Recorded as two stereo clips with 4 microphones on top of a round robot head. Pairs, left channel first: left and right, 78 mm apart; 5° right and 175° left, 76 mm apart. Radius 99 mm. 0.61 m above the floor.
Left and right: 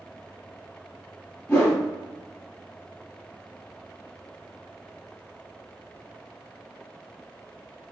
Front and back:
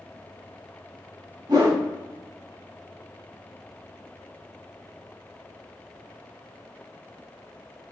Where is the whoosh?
150° left, 1.4 m.